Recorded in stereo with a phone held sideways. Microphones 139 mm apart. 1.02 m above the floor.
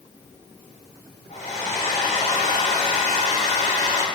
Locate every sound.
1.3 s a hair dryer: 60° left (ahead or behind), 2.5 m